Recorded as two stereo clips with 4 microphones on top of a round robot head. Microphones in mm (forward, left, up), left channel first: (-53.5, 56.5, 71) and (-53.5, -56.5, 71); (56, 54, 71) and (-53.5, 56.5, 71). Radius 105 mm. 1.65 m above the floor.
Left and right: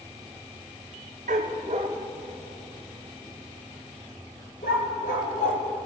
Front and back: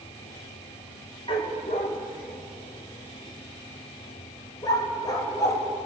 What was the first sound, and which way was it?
A dog barking, 60° right.